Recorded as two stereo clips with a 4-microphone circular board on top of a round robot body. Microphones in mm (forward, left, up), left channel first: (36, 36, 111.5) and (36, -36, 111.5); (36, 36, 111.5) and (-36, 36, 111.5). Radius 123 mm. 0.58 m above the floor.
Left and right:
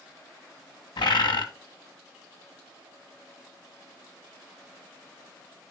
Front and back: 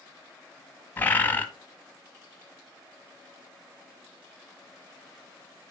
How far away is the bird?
About 1.2 m.